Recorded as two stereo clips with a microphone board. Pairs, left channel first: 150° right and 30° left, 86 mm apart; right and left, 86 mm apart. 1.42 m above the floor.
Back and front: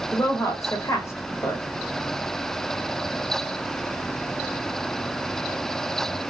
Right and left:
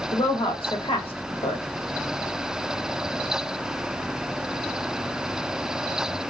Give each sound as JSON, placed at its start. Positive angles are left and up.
{"t": 0.1, "sound": "a woman speaking", "azimuth_deg": -95, "distance_m": 1.1}